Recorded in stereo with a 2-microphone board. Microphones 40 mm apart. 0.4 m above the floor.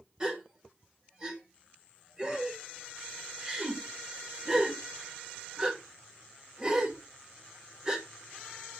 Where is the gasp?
25° right (ahead or behind), 1.6 m.